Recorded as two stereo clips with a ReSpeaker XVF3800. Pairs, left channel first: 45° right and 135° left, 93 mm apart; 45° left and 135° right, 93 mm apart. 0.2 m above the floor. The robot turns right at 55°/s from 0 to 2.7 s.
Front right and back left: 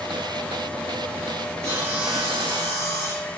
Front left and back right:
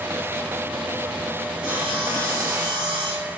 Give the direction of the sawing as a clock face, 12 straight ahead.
5 o'clock.